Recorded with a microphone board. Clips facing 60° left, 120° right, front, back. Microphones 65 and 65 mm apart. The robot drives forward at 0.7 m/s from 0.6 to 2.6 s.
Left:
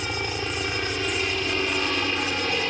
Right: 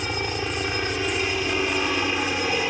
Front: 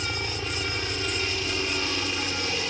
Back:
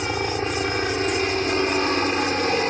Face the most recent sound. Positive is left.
turn(degrees=165)